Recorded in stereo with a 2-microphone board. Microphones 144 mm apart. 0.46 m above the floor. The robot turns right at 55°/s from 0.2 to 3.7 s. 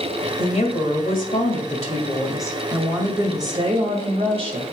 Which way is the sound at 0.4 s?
45° left.